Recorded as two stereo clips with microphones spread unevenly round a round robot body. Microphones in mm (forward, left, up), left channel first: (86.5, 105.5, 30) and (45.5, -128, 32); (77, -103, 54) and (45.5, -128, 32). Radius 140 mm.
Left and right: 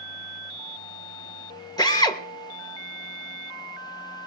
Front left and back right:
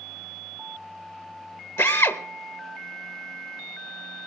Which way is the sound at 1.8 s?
10° left.